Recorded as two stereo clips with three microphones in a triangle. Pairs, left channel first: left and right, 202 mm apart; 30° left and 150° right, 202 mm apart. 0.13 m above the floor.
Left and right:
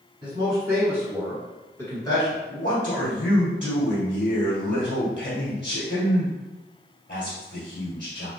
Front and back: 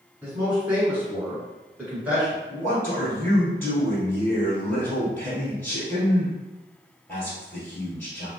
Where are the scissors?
I don't hear scissors.